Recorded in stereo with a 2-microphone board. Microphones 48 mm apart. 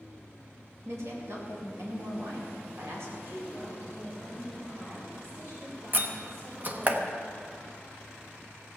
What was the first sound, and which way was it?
A woman speaking, 70° right (ahead or behind).